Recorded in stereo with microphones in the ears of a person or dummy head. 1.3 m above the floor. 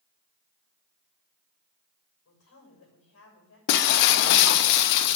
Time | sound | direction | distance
2.2 | a woman speaking | 70° left (ahead or behind) | 6 m
3.7 | breaking glass | 50° left (ahead or behind) | 0.7 m